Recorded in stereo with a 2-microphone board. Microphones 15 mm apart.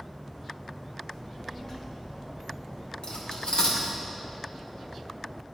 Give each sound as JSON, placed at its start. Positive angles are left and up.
{"t": 1.1, "sound": "a child speaking", "side_deg": 40, "distance_m": 1.1}
{"t": 3.0, "sound": "cutlery clinking", "side_deg": 60, "distance_m": 1.2}